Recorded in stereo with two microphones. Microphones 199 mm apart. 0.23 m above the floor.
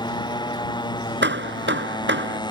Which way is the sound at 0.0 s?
20° left (ahead or behind).